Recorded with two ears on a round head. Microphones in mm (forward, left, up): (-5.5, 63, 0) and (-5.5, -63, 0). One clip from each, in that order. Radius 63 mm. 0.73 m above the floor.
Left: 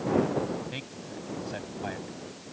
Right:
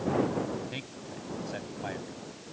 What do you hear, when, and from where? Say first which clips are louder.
0.7 s a man speaking: left 1 dB; centre (ahead or behind)